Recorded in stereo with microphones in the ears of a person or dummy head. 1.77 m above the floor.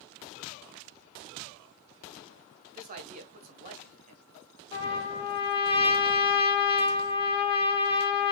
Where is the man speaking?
45° right (ahead or behind), 1.2 m.